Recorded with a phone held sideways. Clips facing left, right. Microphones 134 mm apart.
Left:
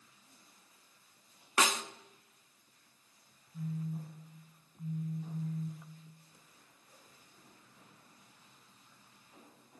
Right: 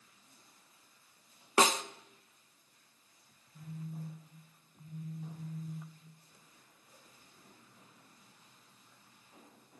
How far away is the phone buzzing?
About 9 m.